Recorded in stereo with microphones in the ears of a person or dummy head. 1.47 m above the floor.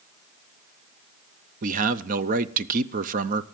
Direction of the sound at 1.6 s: 45° right (ahead or behind).